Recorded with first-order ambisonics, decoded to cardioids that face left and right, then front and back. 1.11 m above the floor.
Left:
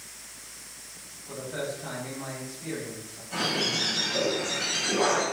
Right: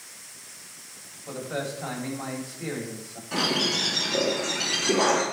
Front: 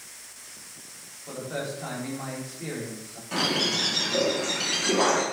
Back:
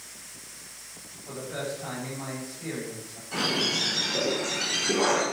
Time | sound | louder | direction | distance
1.3 | a man speaking | right 2 dB, front 1 dB | 60° right | 3.5 m
3.3 | a bird | right 3 dB, front 1 dB | 35° right | 3 m